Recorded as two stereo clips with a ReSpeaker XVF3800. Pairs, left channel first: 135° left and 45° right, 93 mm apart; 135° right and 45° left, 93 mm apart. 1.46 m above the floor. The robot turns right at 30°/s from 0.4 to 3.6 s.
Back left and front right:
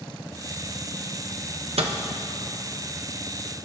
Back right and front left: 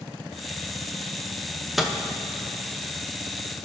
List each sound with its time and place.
1.8 s a microwave: 45° right, 0.6 m; by 1.9 s 40° right, 0.6 m